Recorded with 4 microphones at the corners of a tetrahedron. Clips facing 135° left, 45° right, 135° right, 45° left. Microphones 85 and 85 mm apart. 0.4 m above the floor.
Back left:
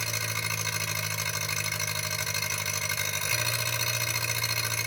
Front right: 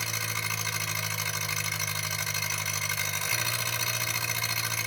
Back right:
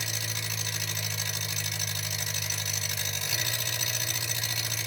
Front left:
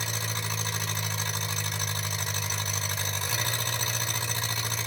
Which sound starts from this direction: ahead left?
An engine running, at 0.0 s.